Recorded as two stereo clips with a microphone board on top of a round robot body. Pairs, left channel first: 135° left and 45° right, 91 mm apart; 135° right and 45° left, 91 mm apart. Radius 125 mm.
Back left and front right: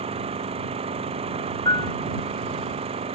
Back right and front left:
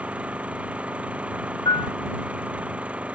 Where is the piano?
Straight behind.